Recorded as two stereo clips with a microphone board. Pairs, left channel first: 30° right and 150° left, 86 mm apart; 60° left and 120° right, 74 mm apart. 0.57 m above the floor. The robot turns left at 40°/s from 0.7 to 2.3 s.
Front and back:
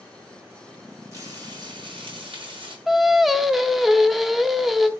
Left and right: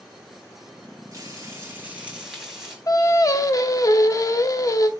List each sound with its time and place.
1.1 s frying: 160° right, 3.5 m; by 2.8 s 155° left, 3.5 m
2.9 s singing: 60° left, 0.6 m